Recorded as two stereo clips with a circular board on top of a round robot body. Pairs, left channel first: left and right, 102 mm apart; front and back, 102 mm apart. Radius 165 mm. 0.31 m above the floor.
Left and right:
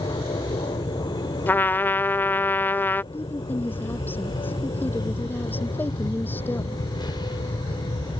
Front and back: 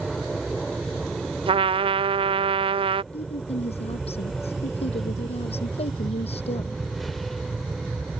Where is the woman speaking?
20° left.